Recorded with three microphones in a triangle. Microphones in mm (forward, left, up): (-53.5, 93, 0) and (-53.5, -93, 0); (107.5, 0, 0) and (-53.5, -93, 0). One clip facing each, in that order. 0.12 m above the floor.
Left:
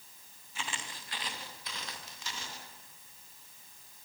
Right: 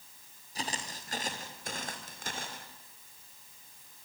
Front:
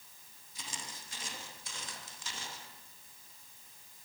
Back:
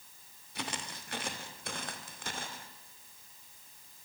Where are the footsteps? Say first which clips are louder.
Right 4 dB, back 8 dB; 140° right, 3.5 m; by 2.7 s 120° right, 5 m.